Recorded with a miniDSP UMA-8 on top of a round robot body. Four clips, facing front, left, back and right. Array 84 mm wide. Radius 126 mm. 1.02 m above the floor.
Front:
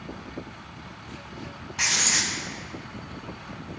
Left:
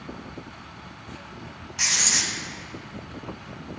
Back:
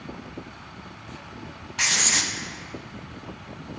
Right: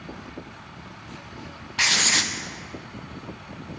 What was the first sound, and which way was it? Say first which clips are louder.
Writing: right 5 dB, back 1 dB; 105° right.